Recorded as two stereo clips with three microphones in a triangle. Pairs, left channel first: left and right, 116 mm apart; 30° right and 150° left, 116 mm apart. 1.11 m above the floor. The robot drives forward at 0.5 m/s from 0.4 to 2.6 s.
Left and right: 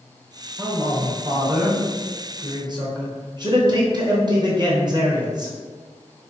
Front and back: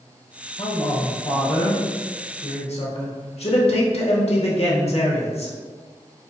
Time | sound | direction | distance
0.6 | a man speaking | 20° right | 1.7 m